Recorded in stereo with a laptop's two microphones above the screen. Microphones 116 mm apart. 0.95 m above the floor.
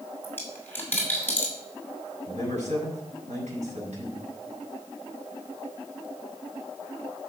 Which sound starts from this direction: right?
A man speaking, at 2.3 s.